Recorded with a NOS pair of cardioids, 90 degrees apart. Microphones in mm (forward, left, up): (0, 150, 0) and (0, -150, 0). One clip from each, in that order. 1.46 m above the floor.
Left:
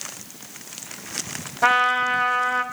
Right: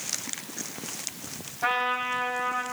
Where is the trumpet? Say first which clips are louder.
Left 8 dB; 65° left, 4 m.